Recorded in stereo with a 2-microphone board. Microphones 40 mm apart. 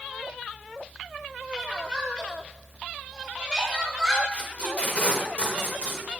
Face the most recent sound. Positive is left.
turn(degrees=40)  # may be behind; listen again after turning